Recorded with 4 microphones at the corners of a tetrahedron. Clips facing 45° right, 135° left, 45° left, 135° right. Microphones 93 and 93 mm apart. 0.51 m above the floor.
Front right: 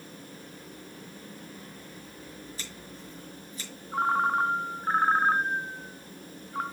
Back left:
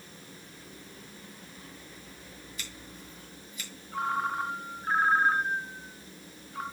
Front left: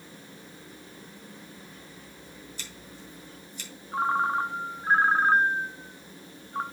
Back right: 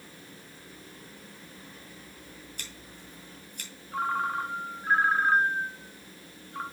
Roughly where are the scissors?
Right.